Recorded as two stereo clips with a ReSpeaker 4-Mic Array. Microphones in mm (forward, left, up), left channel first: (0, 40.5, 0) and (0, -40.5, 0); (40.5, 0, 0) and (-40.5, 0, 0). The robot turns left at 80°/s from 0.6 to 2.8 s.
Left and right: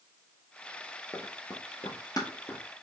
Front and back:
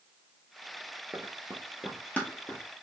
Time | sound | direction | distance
1.1 | running footsteps | 120° left | 1.2 m